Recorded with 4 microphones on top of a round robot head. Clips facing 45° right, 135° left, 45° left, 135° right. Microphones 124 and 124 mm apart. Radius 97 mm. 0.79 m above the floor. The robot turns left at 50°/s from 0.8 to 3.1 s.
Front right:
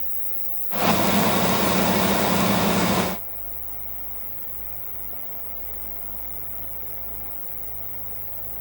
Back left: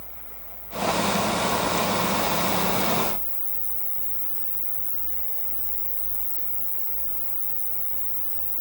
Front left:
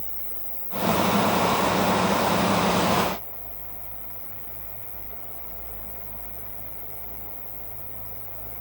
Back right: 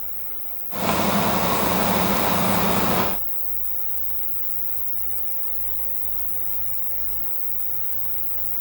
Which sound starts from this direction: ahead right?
An insect, at 0.0 s.